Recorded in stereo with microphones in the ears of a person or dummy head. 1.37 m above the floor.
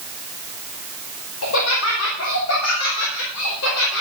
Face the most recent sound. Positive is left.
turn(degrees=90)